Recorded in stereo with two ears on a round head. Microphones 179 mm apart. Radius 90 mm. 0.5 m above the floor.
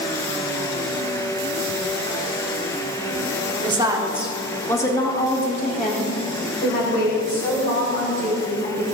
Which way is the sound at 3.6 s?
25° right (ahead or behind).